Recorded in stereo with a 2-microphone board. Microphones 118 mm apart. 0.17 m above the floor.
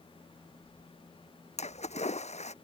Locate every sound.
1.6 s a splash: 70° left (ahead or behind)